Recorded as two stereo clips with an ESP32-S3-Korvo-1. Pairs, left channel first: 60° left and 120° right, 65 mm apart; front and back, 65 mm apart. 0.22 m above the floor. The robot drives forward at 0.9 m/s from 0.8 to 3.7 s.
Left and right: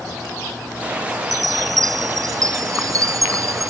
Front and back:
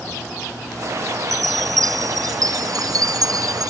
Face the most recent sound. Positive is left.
turn(degrees=-155)